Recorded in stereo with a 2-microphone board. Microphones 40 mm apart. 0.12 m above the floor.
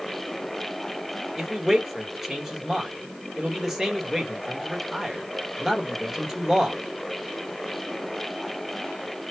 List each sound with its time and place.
1.4 s a man speaking: 10° right (ahead or behind), 2 m